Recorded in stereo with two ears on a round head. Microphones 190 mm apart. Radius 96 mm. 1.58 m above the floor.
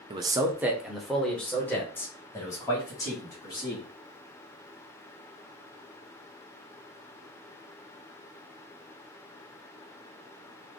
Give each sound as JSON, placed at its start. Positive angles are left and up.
{"t": 0.1, "sound": "a man speaking", "side_deg": -25, "distance_m": 0.7}